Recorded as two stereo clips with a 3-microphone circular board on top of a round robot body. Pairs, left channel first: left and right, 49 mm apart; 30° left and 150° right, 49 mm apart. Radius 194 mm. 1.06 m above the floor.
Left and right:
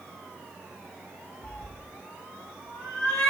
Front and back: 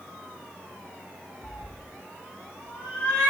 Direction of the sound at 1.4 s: 90° left.